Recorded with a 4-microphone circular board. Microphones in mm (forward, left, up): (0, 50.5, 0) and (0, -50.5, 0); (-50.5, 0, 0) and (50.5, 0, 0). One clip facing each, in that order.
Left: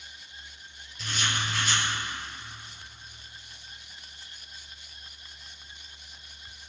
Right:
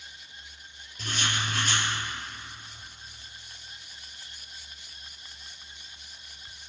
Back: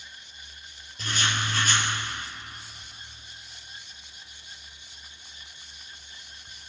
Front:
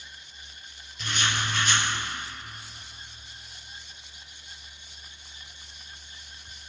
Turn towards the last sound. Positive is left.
turn(degrees=-135)